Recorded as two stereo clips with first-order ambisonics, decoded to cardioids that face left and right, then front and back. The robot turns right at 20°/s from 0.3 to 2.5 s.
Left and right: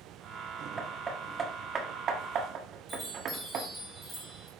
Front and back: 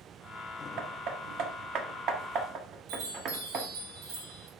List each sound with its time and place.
0.8 s hammering: 165° right, 1.2 m; by 3.7 s 135° right, 1.2 m
2.9 s a chime: 175° right, 3 m